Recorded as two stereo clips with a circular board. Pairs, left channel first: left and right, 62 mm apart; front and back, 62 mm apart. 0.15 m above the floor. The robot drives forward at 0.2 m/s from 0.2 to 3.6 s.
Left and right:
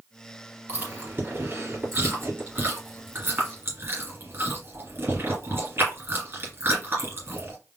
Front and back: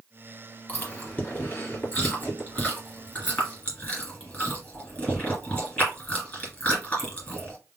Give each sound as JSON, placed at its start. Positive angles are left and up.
{"t": 0.7, "sound": "chewing", "azimuth_deg": -50, "distance_m": 3.0}